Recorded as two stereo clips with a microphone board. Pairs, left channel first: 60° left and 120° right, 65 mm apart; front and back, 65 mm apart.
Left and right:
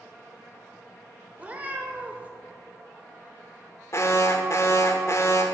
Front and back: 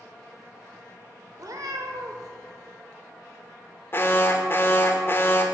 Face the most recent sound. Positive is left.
turn(degrees=40)